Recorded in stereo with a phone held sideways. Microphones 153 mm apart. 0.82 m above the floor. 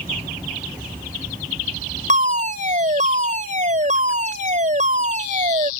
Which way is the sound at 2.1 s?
55° right (ahead or behind).